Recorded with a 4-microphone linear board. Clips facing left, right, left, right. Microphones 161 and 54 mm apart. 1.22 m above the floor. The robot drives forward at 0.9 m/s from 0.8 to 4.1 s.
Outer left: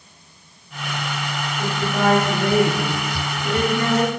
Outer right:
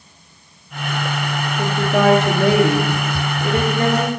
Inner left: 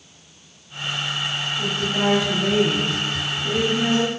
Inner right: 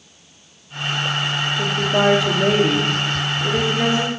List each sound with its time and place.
1.6 s a woman speaking: 65° right (ahead or behind), 1.3 m; by 4.1 s 35° right (ahead or behind), 2 m